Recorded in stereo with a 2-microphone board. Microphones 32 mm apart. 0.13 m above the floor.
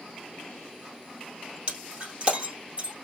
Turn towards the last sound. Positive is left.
turn(degrees=-35)  # may be behind; listen again after turning